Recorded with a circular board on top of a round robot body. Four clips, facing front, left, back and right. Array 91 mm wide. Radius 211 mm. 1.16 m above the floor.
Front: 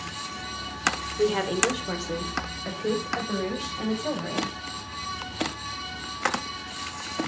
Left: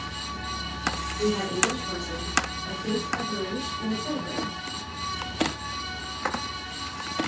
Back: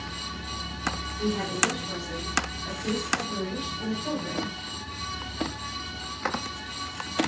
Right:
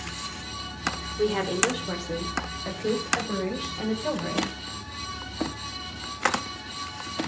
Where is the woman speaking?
30° right, 4 m; by 4.5 s 50° right, 6.5 m.